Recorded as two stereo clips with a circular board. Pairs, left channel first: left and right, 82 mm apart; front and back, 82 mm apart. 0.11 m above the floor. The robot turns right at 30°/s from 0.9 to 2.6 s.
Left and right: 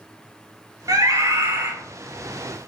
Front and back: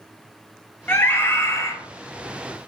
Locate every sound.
0.9 s a scream: 60° right, 2 m; by 1.7 s 35° right, 2 m